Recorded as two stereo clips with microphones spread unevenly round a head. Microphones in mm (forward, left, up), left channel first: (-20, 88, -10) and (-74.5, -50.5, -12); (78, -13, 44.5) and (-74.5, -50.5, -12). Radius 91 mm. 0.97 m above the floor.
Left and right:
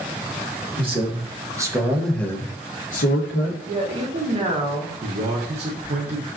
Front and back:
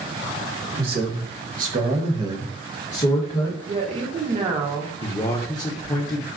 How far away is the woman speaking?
About 1.0 m.